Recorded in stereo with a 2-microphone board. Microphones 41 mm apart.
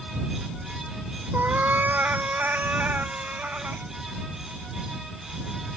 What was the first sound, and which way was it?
A cat meowing, 60° right (ahead or behind).